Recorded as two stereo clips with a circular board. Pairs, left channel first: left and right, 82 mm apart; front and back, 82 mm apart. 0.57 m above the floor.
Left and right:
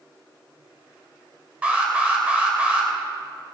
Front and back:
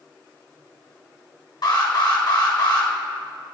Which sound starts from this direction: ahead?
An alarm, at 1.6 s.